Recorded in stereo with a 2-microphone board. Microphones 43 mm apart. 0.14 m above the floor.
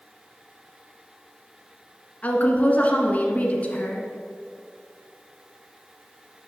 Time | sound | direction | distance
2.2 | a woman speaking | 35° left (ahead or behind) | 1.3 m